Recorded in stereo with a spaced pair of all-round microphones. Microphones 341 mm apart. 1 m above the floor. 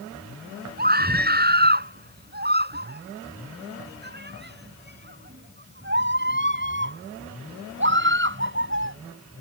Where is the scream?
30° right (ahead or behind); by 9.0 s 35° right (ahead or behind).